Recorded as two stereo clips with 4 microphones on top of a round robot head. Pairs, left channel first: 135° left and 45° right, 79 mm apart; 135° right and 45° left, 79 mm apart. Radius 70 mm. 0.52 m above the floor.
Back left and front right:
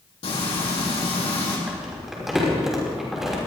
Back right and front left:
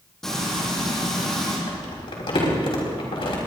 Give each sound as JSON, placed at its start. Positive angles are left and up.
{"t": 0.2, "sound": "frying", "azimuth_deg": 140, "distance_m": 5.5}
{"t": 1.7, "sound": "crumpling", "azimuth_deg": -130, "distance_m": 5.0}